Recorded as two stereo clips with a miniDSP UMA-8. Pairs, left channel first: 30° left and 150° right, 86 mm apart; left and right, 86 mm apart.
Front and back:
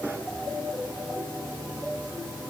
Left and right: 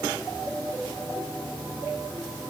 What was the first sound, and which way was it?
Only background noise.